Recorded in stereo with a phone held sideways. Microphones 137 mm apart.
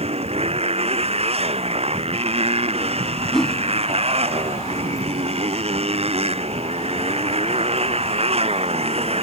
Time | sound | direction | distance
0.0 | a motorcycle | 50° right (ahead or behind) | ?
3.3 | a whoosh | centre (ahead or behind) | ?